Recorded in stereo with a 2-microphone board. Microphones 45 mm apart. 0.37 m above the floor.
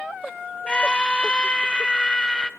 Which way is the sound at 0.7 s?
20° left (ahead or behind).